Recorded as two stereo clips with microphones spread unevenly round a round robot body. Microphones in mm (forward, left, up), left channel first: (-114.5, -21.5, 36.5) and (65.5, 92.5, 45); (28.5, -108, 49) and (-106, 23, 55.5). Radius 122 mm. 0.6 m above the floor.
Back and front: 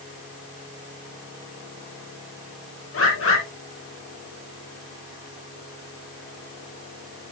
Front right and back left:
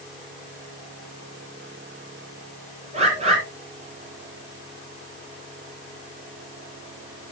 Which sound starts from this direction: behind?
A bird, at 2.9 s.